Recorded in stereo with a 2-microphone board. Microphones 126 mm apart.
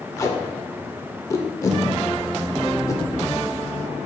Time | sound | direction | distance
0.2 | tape being pulled | 25° left (ahead or behind) | 0.7 m